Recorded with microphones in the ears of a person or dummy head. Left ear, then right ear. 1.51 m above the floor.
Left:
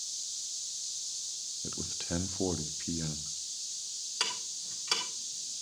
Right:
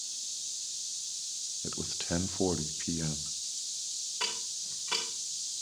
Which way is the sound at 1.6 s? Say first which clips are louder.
Right 2 dB; 15° right (ahead or behind).